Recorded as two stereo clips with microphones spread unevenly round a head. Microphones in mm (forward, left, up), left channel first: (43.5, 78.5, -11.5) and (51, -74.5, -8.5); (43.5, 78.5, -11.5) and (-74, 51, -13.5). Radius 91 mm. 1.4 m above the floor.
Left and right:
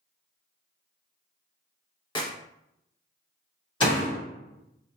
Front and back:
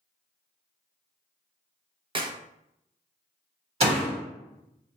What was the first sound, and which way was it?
A clap, 155° left.